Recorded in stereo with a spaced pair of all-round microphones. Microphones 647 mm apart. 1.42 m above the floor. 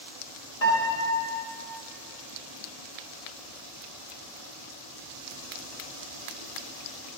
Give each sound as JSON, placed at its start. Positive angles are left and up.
{"t": 0.6, "sound": "a piano", "side_deg": 65, "distance_m": 3.0}